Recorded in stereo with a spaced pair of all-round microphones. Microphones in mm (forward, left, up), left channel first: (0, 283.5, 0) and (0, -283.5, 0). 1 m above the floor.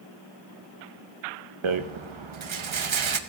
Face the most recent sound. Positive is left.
turn(degrees=-60)  # may be behind; listen again after turning